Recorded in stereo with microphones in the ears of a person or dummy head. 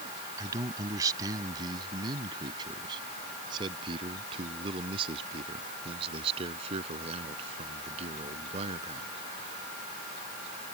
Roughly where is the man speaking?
Centre.